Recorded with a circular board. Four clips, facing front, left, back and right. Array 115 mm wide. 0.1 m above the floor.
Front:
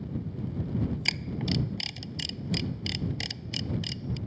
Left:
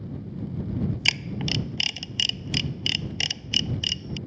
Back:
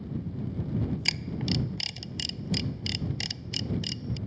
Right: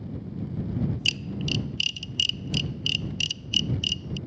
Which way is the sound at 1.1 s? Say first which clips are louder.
Left 1 dB, even; 85° left.